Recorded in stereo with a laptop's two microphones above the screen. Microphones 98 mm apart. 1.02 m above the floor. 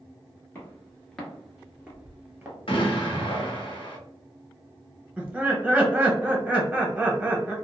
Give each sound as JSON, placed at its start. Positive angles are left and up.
{"t": 0.6, "sound": "footsteps", "side_deg": 20, "distance_m": 1.0}
{"t": 2.7, "sound": "an explosion", "side_deg": 65, "distance_m": 0.8}
{"t": 5.2, "sound": "laughter", "side_deg": -15, "distance_m": 1.0}